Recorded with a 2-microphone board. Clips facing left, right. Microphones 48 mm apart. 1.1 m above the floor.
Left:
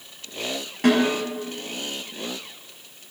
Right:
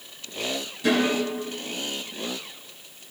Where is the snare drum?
60° left (ahead or behind), 6 m.